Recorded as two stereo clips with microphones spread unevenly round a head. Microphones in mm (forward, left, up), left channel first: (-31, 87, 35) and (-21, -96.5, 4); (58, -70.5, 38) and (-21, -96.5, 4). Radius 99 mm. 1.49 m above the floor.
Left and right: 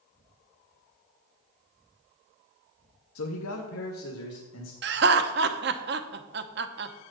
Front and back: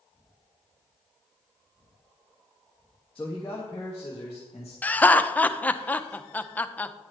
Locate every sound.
3.1 s a man speaking: 100° left, 0.7 m; by 4.7 s 80° left, 1.9 m
4.8 s laughter: 45° right, 0.9 m